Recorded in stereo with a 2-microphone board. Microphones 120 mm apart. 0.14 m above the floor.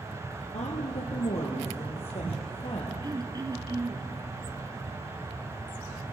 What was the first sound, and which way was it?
A woman speaking, 70° left (ahead or behind).